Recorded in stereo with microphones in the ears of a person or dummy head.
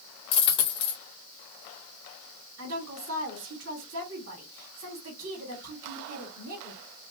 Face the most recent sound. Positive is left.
turn(degrees=-75)  # may be behind; listen again after turning